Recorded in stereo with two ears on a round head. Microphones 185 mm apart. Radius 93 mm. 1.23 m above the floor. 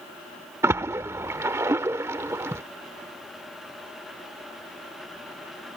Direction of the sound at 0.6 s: 15° right (ahead or behind).